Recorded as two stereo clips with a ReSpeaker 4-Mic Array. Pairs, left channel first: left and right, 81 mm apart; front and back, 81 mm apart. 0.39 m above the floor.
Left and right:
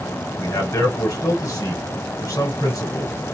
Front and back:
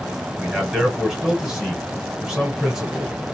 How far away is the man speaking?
About 1.8 m.